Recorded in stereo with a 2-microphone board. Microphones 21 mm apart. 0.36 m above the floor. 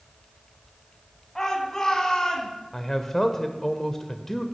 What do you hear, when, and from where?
1.4 s a shout: 15° left (ahead or behind), 2.5 m; by 2.5 s 25° left (ahead or behind), 3 m
2.7 s a man speaking: 25° left (ahead or behind), 0.9 m